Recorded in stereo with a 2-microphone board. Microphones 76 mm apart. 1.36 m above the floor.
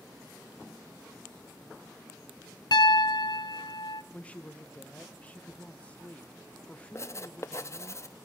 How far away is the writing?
About 0.6 m.